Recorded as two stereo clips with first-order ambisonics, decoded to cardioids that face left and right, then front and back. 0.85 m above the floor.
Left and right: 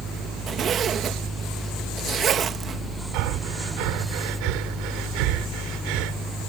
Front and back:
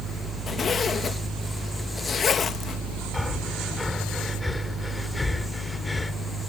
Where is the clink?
No clink in this recording.